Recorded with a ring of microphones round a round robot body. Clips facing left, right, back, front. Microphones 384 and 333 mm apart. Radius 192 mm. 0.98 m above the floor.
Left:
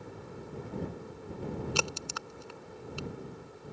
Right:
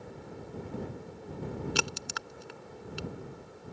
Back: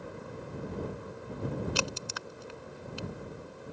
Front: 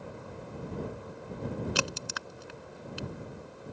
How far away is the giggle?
No giggle in this recording.